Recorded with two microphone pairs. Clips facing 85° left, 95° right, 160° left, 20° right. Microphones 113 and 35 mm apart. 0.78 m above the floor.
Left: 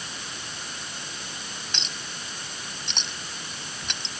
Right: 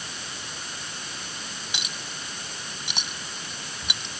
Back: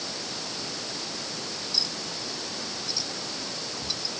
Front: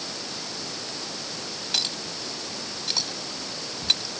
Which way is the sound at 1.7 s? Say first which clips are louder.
Even, front 5 dB; 10° right.